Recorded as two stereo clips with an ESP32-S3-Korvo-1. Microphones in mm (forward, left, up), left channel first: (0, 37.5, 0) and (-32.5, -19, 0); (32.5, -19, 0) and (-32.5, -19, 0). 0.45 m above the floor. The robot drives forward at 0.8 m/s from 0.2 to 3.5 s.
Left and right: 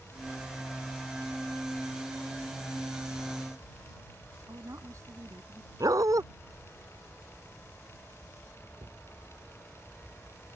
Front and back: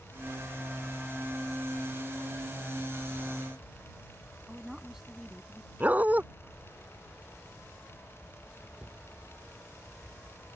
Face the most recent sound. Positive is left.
turn(degrees=-105)